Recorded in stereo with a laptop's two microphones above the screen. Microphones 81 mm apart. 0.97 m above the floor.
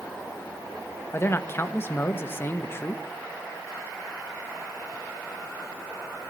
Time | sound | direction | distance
1.1 | a man speaking | 30° left (ahead or behind) | 0.8 m